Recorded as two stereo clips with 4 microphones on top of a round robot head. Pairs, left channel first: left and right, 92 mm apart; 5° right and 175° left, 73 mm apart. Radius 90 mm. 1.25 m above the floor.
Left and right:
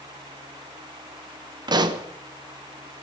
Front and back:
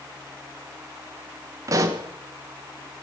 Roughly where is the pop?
Behind right.